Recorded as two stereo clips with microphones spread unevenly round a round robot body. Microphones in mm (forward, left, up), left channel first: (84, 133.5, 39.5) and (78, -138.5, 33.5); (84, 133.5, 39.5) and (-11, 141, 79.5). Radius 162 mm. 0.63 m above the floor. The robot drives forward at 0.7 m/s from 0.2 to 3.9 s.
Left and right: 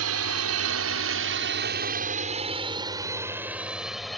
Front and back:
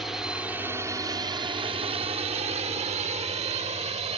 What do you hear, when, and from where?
0.0 s a drone: 85° right; by 4.2 s straight behind